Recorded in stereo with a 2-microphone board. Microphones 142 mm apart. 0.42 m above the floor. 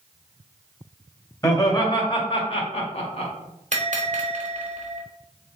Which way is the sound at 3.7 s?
60° right (ahead or behind).